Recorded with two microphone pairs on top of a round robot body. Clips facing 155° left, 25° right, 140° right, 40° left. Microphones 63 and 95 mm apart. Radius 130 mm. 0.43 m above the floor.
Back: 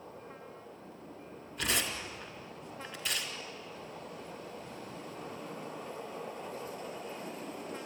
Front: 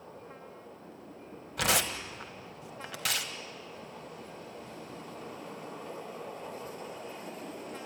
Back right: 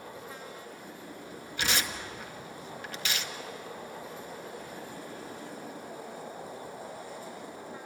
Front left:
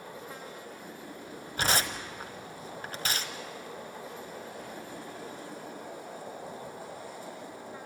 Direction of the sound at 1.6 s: 10° right.